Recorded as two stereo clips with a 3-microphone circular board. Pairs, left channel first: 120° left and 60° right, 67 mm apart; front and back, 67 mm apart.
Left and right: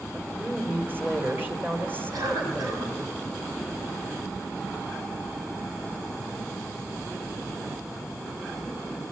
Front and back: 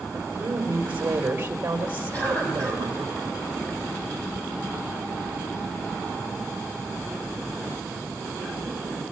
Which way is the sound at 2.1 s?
70° right.